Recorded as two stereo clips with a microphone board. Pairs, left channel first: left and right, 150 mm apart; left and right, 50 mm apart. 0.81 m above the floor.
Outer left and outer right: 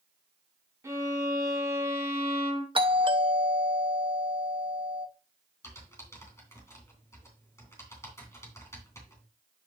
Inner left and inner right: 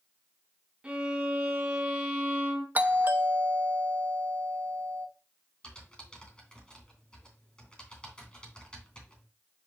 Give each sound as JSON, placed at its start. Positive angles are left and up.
{"t": 0.8, "sound": "a violin", "side_deg": -20, "distance_m": 2.5}
{"t": 2.8, "sound": "a doorbell", "side_deg": -35, "distance_m": 0.9}
{"t": 5.6, "sound": "typing on a keyboard", "side_deg": 20, "distance_m": 3.0}